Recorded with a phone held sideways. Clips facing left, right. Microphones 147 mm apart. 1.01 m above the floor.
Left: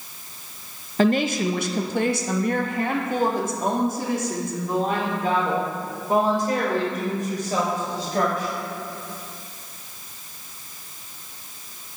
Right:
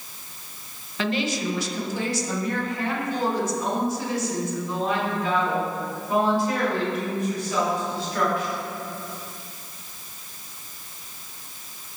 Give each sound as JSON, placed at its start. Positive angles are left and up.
{"t": 1.0, "sound": "a woman speaking", "side_deg": 45, "distance_m": 0.6}